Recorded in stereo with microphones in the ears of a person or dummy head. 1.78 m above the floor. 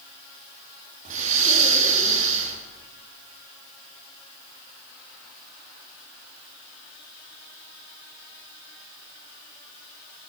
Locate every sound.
1.1 s breathing: 50° right (ahead or behind), 2 m